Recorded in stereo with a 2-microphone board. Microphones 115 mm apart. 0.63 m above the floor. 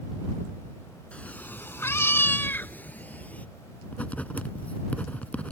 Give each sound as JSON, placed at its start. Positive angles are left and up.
{"t": 1.1, "sound": "a cat meowing", "side_deg": 10}
{"t": 3.9, "sound": "writing", "side_deg": 15}